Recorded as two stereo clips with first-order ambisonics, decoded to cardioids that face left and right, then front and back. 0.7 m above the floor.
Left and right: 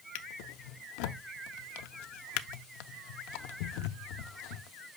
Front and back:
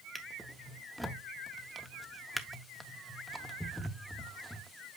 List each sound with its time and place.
0.1 s a drawer: 90° left, 0.6 m